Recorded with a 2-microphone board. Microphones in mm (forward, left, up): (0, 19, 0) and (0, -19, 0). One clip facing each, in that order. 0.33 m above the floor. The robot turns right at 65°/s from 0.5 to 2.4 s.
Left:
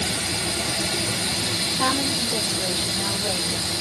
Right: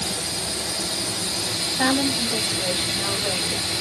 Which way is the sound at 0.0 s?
80° left.